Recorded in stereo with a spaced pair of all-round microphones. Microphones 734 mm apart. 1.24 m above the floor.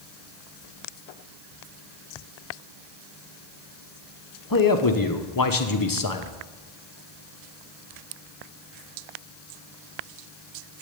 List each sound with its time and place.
4.5 s a man speaking: 30° left (ahead or behind), 0.9 m